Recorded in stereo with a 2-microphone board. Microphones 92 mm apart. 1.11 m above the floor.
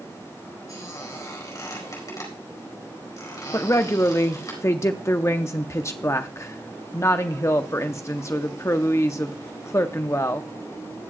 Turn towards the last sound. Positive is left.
turn(degrees=35)  # may be behind; listen again after turning